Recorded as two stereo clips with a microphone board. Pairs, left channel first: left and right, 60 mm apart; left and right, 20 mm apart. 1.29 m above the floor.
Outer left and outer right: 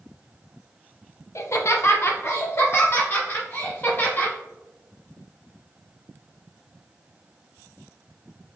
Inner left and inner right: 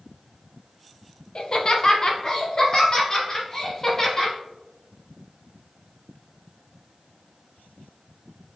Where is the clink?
I don't hear a clink.